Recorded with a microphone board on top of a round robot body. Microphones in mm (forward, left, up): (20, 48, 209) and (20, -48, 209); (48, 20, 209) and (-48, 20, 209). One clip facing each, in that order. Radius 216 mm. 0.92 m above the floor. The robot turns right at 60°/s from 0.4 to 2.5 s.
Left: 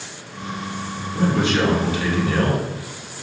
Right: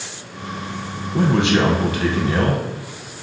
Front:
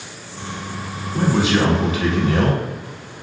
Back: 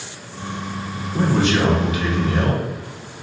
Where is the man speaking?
100° right, 1.0 m; by 2.6 s 20° right, 1.0 m.